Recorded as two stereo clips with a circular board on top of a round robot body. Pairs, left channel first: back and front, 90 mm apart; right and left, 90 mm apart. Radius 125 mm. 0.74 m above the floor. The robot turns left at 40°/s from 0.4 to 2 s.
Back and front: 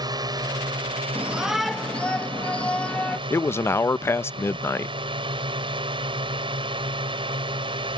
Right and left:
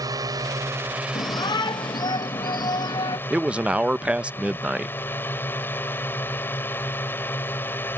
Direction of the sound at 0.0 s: 40° left.